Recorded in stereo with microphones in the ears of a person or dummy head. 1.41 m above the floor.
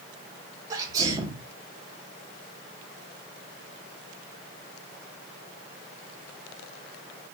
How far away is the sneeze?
About 1.0 m.